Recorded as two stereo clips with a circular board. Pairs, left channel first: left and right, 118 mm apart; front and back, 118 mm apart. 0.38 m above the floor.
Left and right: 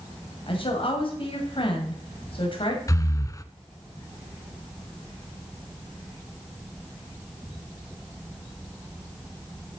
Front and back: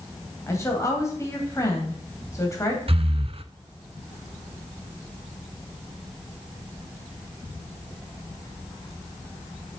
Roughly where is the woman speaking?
Ahead left.